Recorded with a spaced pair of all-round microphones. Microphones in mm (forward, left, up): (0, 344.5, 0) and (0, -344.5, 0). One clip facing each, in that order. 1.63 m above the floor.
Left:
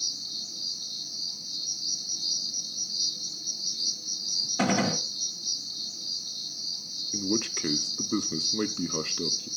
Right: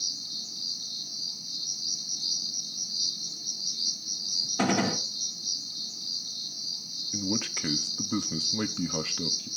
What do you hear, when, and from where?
0.0 s an insect: centre (ahead or behind), 1.2 m
4.6 s a gunshot: 5° left (ahead or behind), 1.1 m
7.1 s a man speaking: 20° right (ahead or behind), 0.8 m